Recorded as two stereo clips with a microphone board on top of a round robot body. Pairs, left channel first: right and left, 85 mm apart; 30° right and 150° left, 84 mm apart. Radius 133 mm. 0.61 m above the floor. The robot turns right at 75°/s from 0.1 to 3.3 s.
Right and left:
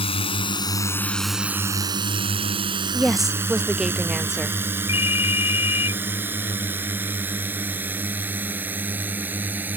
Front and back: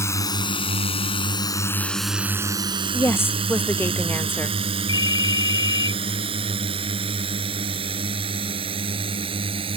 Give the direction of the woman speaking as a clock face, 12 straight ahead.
12 o'clock.